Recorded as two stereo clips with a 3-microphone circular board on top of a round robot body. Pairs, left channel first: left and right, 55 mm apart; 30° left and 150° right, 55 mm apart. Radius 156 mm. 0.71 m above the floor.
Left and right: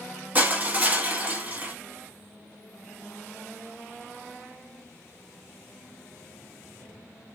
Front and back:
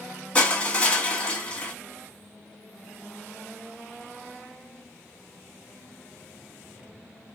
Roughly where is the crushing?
Ahead right.